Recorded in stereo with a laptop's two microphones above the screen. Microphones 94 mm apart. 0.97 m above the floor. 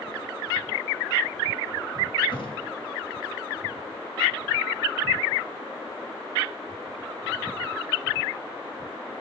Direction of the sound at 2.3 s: 60° left (ahead or behind).